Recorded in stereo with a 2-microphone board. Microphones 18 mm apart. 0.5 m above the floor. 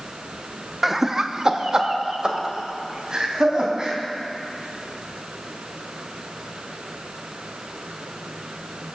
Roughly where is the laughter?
Centre.